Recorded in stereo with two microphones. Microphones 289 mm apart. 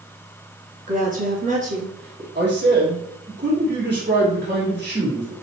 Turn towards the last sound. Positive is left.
turn(degrees=-40)  # may be behind; listen again after turning